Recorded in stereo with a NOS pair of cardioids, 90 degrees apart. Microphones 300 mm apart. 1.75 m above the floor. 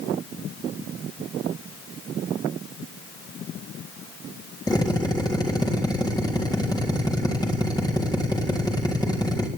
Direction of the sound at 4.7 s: 15° left.